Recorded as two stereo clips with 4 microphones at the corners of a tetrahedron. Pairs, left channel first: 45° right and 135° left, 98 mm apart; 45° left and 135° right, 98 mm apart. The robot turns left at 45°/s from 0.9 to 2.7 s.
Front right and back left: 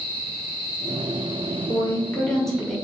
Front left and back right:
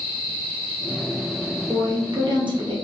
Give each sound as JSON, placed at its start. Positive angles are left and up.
{"t": 1.7, "sound": "a woman speaking", "azimuth_deg": -95, "distance_m": 1.0}